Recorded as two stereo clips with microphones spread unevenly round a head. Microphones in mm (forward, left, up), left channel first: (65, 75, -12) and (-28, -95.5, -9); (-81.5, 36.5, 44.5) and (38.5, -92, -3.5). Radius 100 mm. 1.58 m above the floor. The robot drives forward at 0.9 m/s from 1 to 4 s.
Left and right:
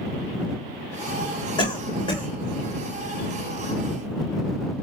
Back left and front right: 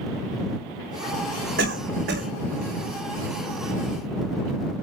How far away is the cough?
About 7 m.